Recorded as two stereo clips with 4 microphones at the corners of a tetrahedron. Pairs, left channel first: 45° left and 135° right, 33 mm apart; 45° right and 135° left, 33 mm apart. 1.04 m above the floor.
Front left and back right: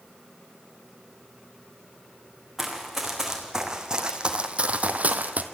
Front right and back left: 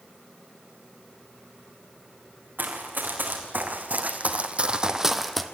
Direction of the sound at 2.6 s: 145° left.